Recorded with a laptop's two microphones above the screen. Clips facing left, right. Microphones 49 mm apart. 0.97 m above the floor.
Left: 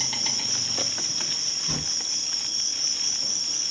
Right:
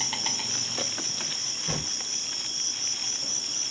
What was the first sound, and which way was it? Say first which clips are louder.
An insect: even; 15° right (ahead or behind).